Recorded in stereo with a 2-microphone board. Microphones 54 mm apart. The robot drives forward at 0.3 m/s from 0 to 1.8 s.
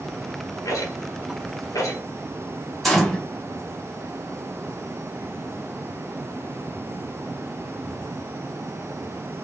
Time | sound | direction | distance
0.7 | a rattle | 85° left | 1.9 m
2.8 | a gunshot | 5° left (ahead or behind) | 2 m